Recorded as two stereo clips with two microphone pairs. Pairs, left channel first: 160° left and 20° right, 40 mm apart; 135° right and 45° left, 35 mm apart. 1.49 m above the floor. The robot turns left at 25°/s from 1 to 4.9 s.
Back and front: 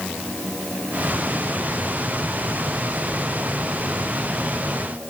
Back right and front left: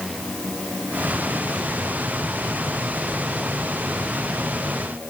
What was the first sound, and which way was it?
Only background noise.